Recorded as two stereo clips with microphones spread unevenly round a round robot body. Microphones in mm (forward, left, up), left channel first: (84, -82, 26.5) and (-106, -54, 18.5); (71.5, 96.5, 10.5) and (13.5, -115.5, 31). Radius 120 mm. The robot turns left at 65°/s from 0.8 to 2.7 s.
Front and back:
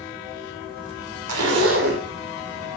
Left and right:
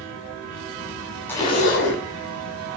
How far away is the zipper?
About 1.9 m.